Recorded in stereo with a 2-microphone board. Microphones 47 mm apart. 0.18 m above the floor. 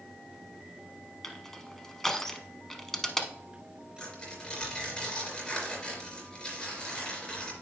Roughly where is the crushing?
Centre.